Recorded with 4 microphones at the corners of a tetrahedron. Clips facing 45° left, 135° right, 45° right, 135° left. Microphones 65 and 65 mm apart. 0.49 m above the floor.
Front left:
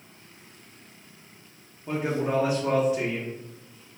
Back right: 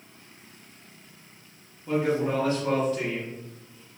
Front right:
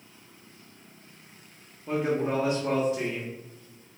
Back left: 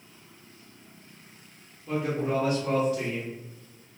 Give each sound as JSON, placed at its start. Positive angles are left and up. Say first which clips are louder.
{"t": 1.9, "sound": "a man speaking", "louder": "back right 2 dB, front right 1 dB", "azimuth_deg": -10, "distance_m": 0.7}